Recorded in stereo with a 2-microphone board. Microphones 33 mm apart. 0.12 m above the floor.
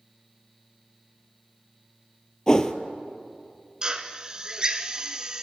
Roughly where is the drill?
Right.